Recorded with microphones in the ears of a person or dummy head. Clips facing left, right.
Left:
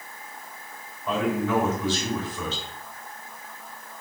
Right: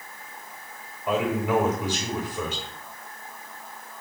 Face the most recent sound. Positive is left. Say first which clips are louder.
# right 1 dB
turn(degrees=-20)  # may be behind; listen again after turning